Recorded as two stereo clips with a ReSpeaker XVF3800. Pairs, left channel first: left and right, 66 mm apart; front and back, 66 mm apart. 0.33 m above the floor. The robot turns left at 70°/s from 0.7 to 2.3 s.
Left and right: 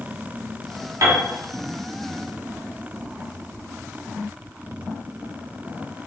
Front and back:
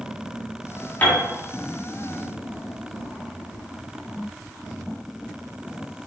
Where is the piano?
60° right, 2.5 m; by 1.2 s 75° right, 2.5 m.